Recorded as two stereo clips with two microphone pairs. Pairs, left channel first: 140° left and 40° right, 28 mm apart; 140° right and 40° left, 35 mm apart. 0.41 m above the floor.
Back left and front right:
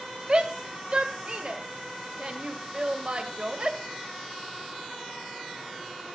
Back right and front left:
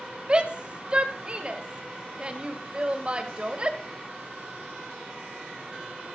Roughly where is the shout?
Ahead.